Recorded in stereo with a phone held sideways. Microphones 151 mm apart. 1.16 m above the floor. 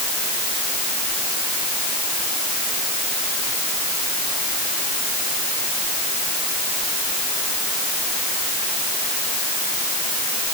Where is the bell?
No bell in this recording.